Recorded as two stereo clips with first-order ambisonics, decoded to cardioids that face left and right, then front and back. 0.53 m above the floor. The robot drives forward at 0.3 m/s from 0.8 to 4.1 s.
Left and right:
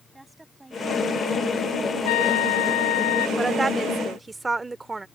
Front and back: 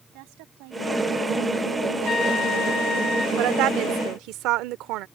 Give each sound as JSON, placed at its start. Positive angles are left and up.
{"t": 0.1, "sound": "a woman speaking", "azimuth_deg": -175}
{"t": 2.0, "sound": "a trumpet", "azimuth_deg": 70}
{"t": 3.4, "sound": "a woman speaking", "azimuth_deg": -165}